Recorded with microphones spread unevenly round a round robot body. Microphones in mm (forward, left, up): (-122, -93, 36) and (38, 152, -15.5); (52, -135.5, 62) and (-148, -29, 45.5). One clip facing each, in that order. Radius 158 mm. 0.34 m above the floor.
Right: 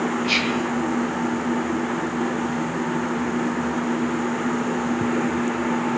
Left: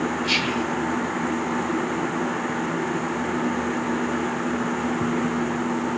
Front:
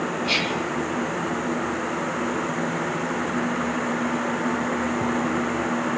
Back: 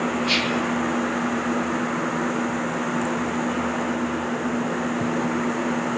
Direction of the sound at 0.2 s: 85° left.